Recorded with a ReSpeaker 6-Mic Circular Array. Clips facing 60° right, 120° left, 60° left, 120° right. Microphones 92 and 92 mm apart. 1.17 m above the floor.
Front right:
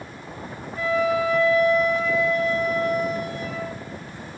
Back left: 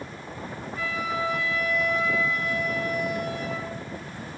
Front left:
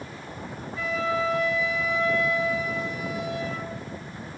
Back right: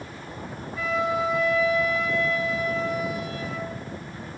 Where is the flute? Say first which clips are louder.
Front right 8 dB, back right 2 dB; 100° right, 1.6 m.